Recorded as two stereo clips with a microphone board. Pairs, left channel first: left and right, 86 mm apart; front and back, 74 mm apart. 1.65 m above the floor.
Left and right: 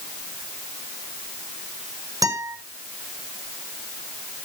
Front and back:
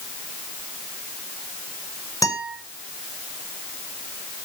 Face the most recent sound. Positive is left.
turn(degrees=-45)